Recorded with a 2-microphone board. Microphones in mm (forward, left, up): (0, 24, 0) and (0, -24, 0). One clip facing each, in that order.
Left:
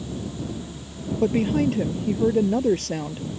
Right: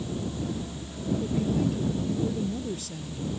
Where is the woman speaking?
60° left (ahead or behind).